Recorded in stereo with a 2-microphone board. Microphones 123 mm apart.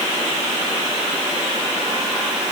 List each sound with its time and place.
Only background noise.